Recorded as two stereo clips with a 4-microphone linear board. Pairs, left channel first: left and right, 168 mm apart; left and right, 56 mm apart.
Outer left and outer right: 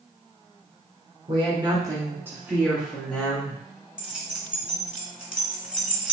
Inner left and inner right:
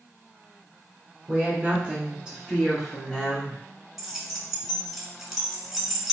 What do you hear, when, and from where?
1.3 s a woman speaking: 35° right (ahead or behind), 1.4 m; by 3.6 s 10° left (ahead or behind), 1.7 m
4.0 s keys jangling: 5° right (ahead or behind), 1.0 m